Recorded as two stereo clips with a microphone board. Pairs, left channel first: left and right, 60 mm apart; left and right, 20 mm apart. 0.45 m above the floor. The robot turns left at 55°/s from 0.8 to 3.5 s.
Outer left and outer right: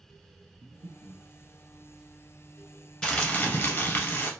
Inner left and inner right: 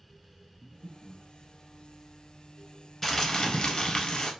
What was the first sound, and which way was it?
Breathing, 65° right (ahead or behind).